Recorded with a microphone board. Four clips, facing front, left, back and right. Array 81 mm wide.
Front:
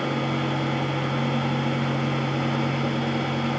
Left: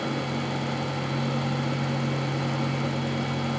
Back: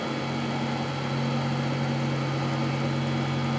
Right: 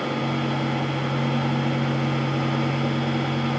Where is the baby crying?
I don't hear a baby crying.